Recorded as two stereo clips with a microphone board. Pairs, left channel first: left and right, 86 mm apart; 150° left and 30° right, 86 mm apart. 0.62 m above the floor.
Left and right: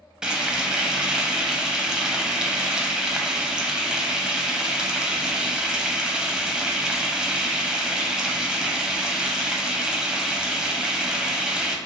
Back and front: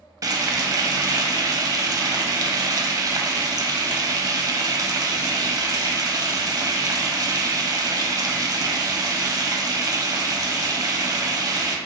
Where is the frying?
10° right, 0.5 m.